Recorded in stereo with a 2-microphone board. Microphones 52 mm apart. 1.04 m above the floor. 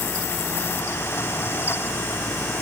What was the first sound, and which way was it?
Only background noise.